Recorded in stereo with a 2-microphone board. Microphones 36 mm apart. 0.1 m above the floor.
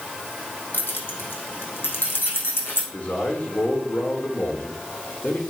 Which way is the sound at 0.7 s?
70° left (ahead or behind).